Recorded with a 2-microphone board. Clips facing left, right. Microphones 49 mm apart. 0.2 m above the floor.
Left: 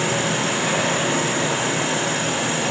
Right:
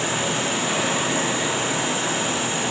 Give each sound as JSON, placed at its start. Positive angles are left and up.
{"t": 0.0, "sound": "an insect", "side_deg": 65, "distance_m": 1.8}